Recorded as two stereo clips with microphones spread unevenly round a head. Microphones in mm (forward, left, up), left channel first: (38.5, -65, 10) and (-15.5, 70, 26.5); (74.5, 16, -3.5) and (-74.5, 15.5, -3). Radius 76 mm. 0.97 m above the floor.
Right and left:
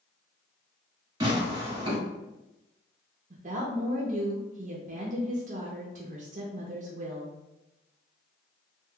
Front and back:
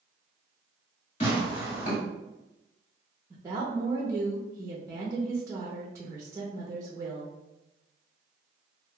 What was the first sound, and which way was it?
Tearing paper, 45° left.